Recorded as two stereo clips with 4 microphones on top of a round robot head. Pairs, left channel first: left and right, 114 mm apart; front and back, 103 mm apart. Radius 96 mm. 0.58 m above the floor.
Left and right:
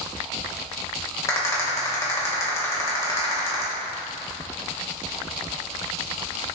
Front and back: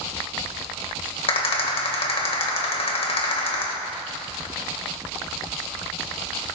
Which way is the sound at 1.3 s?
20° left.